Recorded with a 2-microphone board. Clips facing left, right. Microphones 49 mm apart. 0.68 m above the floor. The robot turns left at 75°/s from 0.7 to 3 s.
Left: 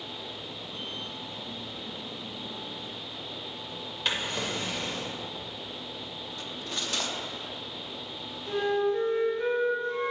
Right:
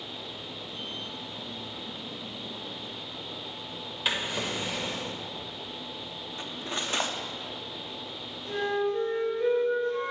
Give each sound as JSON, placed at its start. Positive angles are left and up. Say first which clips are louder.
{"t": 4.0, "sound": "a drawer", "louder": "right 1 dB", "side_deg": -5, "distance_m": 1.1}
{"t": 6.4, "sound": "cutlery clinking", "louder": "right 3 dB", "side_deg": -30, "distance_m": 0.6}
{"t": 8.4, "sound": "a flute", "louder": "left 2 dB", "side_deg": 30, "distance_m": 3.0}